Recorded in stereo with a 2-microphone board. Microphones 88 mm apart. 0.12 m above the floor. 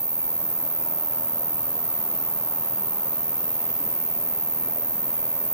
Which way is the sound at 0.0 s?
50° right (ahead or behind).